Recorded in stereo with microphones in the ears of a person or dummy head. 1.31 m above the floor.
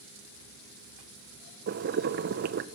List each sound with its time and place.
1.7 s boiling: 50° right (ahead or behind), 0.8 m